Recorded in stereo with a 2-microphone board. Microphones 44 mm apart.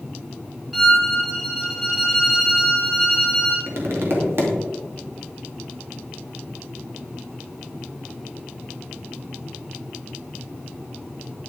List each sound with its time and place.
0.7 s a violin: centre (ahead or behind), 2 m
3.7 s tapping: 60° right (ahead or behind), 2.5 m